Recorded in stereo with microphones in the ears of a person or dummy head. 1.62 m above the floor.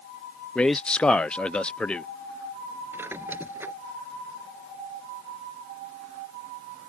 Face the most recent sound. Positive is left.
turn(degrees=-10)  # may be behind; listen again after turning